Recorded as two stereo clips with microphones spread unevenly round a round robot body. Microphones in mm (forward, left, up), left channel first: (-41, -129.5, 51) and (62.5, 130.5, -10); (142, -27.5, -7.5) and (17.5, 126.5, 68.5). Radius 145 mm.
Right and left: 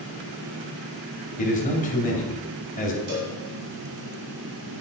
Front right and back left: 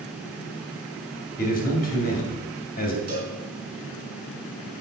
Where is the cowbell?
80° left, 4 m.